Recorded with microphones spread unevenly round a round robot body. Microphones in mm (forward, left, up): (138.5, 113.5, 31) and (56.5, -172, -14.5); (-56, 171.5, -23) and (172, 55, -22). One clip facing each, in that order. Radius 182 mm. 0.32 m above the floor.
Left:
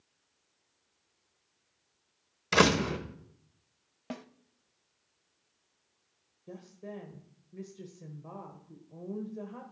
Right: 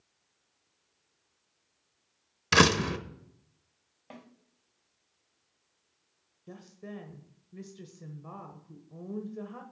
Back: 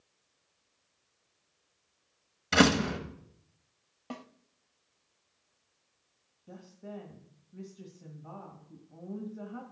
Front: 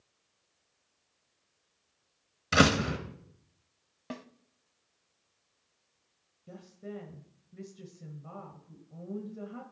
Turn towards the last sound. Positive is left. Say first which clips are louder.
# even, front 2 dB
turn(degrees=-70)